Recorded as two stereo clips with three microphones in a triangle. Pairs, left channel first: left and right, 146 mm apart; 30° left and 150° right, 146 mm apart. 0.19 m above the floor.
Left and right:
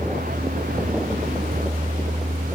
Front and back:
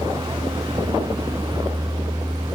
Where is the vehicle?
90° right.